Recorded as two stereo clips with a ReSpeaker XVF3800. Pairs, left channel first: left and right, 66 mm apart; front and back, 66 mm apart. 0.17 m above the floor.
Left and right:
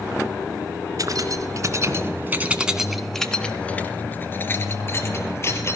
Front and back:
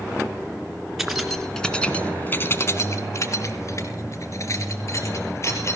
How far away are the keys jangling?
About 1.9 m.